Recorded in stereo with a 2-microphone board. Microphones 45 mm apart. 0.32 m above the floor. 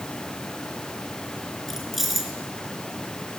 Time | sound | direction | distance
1.7 | keys jangling | 5° right (ahead or behind) | 4 m